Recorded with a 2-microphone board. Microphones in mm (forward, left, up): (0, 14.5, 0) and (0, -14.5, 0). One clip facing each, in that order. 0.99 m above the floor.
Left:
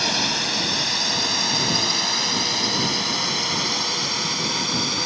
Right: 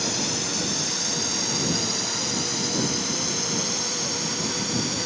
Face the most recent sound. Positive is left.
turn(degrees=40)  # may be behind; listen again after turning